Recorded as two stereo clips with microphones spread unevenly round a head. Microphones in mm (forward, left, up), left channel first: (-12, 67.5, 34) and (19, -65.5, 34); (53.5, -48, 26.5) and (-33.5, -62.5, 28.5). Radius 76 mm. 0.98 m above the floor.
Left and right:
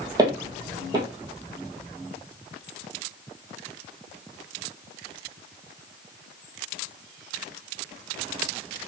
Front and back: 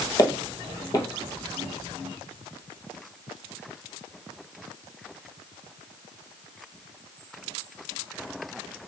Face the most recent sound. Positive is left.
turn(degrees=-20)